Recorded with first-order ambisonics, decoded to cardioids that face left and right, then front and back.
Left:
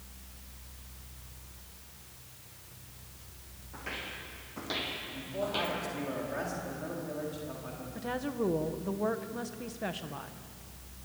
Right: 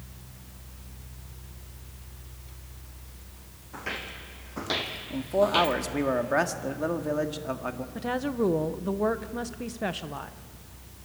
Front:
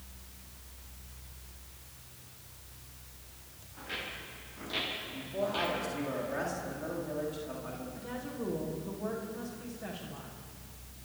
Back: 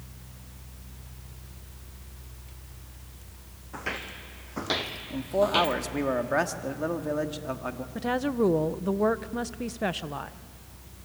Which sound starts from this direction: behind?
Footsteps, at 3.7 s.